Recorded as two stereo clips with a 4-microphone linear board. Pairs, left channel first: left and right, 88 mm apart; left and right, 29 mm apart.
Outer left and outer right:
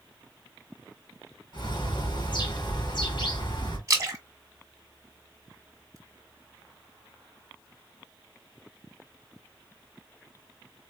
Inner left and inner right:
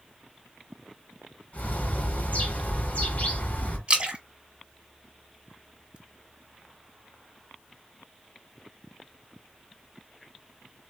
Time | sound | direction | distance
1.5 | a bird | 60° left (ahead or behind) | 2.5 m
3.9 | a splash | 35° right (ahead or behind) | 1.9 m